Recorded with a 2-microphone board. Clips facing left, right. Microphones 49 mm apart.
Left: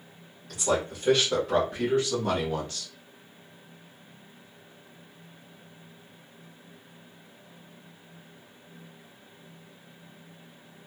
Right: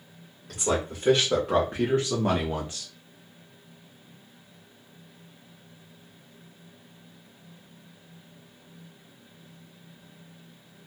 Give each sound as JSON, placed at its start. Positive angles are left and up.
{"t": 0.5, "sound": "a man speaking", "side_deg": -40, "distance_m": 1.7}